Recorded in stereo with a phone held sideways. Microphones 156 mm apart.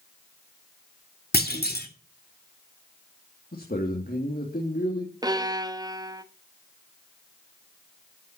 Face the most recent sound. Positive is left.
turn(degrees=-25)  # may be behind; listen again after turning